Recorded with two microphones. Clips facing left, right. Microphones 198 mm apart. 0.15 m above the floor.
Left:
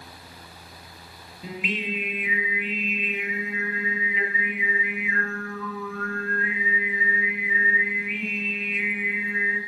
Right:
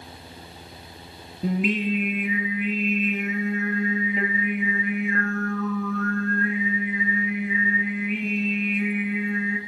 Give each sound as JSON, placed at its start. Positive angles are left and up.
{"t": 1.4, "sound": "singing", "side_deg": -45, "distance_m": 3.0}